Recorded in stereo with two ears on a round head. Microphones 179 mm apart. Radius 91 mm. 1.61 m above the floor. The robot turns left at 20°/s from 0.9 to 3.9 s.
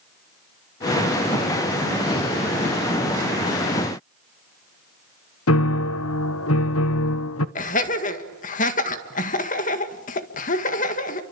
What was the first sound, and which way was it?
A piano, 70° left (ahead or behind).